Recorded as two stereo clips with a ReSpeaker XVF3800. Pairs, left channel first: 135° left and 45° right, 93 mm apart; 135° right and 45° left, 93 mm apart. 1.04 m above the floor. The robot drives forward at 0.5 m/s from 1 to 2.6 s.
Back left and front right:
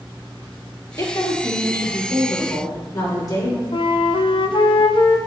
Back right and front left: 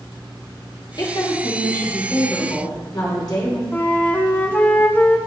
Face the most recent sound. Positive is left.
turn(degrees=155)